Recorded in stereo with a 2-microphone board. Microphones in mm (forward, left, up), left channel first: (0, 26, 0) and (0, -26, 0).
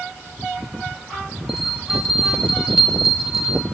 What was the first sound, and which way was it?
A bell, 10° right (ahead or behind).